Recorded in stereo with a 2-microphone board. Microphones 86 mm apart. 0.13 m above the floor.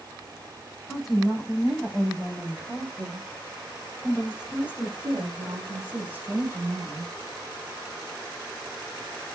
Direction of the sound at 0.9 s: Centre (ahead or behind).